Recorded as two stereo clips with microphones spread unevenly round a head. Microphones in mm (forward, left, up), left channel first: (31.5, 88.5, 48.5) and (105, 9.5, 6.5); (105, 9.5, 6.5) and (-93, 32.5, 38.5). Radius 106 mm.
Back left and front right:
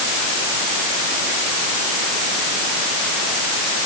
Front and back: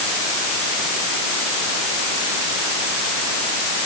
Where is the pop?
I don't hear a pop.